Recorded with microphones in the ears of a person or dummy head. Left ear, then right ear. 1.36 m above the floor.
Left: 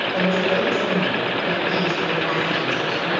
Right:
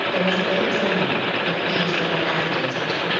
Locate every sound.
0.1 s a woman speaking: 20° right (ahead or behind), 5.5 m